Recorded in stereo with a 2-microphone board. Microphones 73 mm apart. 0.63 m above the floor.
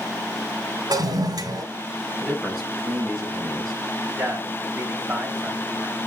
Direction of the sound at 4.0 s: 20° right (ahead or behind).